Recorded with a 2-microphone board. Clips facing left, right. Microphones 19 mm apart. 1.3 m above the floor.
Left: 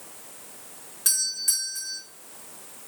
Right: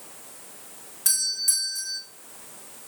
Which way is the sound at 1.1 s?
10° left (ahead or behind).